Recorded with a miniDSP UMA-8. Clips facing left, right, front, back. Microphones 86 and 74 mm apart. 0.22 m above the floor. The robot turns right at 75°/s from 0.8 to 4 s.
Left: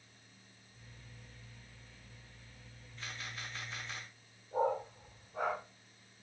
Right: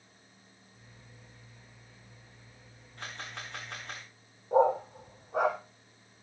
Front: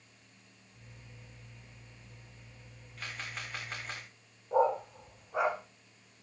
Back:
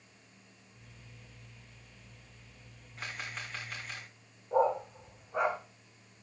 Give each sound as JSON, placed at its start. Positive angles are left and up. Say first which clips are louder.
{"t": 3.0, "sound": "a camera shutter", "louder": "right 4 dB, back 1 dB", "azimuth_deg": -120, "distance_m": 5.5}
{"t": 4.5, "sound": "a dog barking", "louder": "right 9 dB, even", "azimuth_deg": -90, "distance_m": 2.0}